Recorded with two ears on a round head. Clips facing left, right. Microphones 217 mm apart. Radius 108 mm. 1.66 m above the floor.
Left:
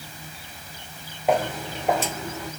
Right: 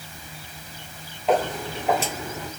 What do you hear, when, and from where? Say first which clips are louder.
1.3 s footsteps: right 1 dB; 10° left (ahead or behind), 1.9 m; by 2.5 s 20° right (ahead or behind), 1.7 m